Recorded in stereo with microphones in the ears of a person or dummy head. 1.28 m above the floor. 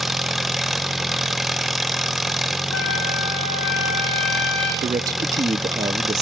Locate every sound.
0.0 s an engine running: 5° left (ahead or behind), 0.7 m
2.7 s a trumpet: 75° left (ahead or behind), 3.5 m
4.8 s a man speaking: 20° right (ahead or behind), 0.7 m